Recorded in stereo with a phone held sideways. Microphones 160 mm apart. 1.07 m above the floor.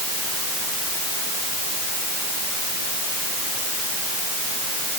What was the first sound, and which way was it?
Only background noise.